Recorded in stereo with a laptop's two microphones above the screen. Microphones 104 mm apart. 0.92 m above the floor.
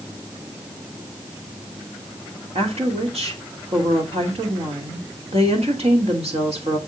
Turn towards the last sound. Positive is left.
turn(degrees=-75)  # may be behind; listen again after turning